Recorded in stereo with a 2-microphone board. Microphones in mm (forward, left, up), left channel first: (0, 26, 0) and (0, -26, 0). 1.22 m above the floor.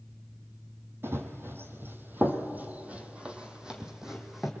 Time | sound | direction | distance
1.0 | running footsteps | 50° right (ahead or behind) | 1.8 m